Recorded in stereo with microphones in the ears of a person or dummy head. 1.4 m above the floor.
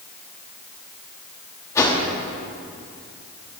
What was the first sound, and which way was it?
A whoosh, 15° left (ahead or behind).